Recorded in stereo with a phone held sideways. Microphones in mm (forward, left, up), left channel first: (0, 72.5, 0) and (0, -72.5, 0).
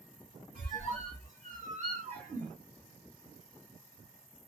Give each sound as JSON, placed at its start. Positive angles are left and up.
{"t": 0.6, "sound": "a squeak", "side_deg": -55, "distance_m": 1.9}